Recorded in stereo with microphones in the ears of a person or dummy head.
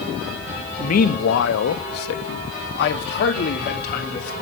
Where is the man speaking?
45° left (ahead or behind), 1.2 m; by 4.3 s 55° left (ahead or behind), 3 m.